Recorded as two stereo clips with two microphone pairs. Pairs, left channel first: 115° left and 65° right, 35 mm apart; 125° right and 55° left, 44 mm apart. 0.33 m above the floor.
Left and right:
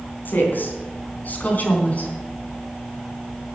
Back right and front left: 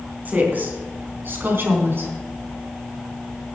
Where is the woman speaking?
100° left, 3.5 m; by 2.1 s 75° left, 3.5 m.